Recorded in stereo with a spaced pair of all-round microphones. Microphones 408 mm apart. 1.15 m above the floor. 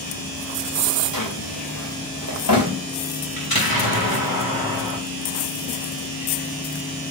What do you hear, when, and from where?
1.1 s a drawer: 55° left (ahead or behind), 2.5 m
3.4 s an explosion: 60° left (ahead or behind), 3 m